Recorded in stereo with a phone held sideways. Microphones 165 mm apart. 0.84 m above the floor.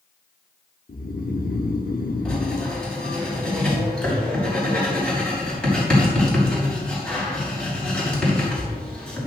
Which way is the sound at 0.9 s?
60° left (ahead or behind).